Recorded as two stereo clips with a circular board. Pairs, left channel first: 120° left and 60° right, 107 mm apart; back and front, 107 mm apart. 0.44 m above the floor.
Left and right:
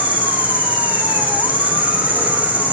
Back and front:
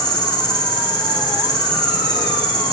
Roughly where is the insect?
Behind right.